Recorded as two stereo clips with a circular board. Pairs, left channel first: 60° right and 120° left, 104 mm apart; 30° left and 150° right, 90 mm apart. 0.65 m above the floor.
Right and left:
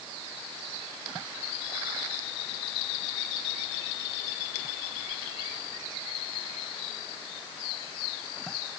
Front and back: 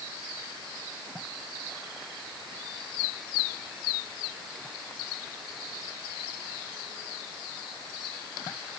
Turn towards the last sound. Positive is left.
No sound to turn to.